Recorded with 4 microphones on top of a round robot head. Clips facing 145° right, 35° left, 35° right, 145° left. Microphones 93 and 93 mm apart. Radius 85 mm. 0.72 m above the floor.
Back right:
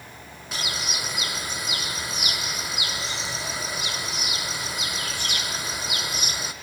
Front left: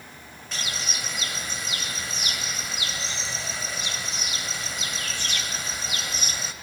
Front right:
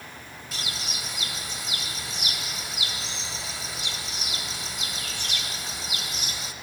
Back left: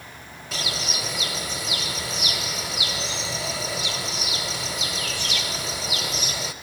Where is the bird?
135° left, 1.0 m.